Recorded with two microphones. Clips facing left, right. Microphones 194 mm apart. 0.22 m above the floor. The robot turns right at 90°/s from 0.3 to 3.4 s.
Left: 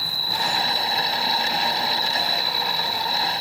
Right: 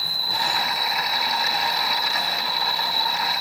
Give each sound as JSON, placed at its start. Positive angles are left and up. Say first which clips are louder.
{"t": 0.0, "sound": "an insect", "louder": "left 1 dB", "azimuth_deg": -85, "distance_m": 5.0}